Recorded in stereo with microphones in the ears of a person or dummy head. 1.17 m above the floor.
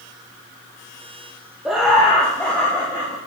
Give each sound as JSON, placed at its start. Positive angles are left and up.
{"t": 1.6, "sound": "laughter", "side_deg": 0, "distance_m": 0.8}